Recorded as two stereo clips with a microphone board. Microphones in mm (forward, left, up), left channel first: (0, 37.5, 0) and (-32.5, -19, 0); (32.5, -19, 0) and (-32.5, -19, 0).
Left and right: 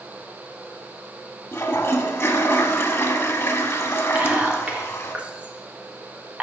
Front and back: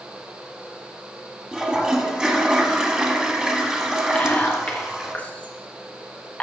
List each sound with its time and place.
1.5 s a toilet flushing: 105° left, 1.2 m
4.2 s whispering: 60° right, 1.4 m